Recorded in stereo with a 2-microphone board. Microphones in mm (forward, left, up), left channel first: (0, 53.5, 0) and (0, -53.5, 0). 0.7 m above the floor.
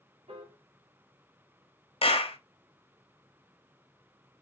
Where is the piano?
65° right (ahead or behind), 1.3 m.